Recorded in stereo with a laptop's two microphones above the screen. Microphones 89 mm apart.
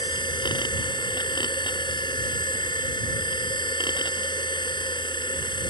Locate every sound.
0.0 s a machine running: 60° left (ahead or behind)